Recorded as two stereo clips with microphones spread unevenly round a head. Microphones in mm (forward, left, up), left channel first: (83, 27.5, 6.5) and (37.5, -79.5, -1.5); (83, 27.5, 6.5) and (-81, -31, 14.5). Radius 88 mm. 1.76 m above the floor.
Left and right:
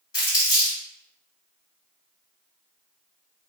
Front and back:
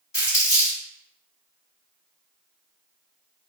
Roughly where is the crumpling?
Left.